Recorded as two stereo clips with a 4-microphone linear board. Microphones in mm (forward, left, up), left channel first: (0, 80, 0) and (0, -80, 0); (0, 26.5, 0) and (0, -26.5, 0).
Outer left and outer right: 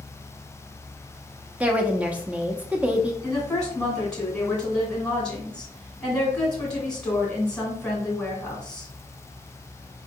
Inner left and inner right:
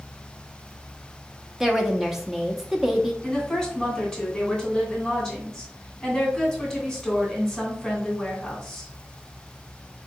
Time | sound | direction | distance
1.6 | a woman speaking | 10° right (ahead or behind) | 0.8 m
3.2 | a woman speaking | 5° left (ahead or behind) | 2.5 m